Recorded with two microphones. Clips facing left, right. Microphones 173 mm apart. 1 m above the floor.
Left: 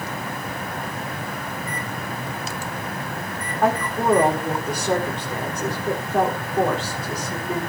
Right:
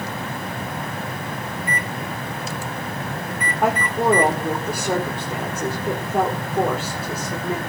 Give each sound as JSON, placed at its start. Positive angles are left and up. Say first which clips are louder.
{"t": 1.6, "sound": "a microwave", "louder": "right 2 dB", "side_deg": -75, "distance_m": 1.4}
{"t": 3.6, "sound": "a woman speaking", "louder": "right 1 dB", "side_deg": -10, "distance_m": 3.5}